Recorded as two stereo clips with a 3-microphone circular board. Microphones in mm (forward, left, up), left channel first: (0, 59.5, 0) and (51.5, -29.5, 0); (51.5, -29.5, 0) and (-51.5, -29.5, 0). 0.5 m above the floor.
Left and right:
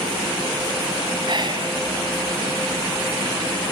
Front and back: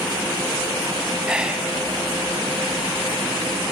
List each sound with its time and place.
1.2 s whispering: 100° right, 3 m